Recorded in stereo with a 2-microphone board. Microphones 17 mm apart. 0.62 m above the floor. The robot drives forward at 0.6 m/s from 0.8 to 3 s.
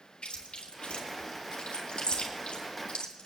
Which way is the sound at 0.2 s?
85° left.